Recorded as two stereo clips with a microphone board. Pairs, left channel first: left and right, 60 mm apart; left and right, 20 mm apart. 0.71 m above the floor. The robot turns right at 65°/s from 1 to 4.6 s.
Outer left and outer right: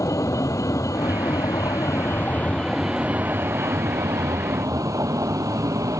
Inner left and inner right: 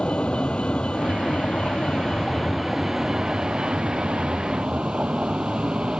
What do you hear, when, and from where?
0.0 s a vehicle: 65° left; by 6.0 s 60° right